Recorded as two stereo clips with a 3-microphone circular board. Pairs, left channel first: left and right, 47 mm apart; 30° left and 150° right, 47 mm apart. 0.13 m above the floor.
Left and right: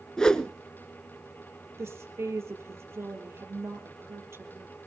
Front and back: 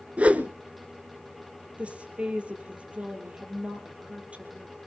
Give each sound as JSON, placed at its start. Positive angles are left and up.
{"t": 0.2, "sound": "a whoosh", "azimuth_deg": 160, "distance_m": 1.1}
{"t": 1.8, "sound": "a woman speaking", "azimuth_deg": -85, "distance_m": 4.0}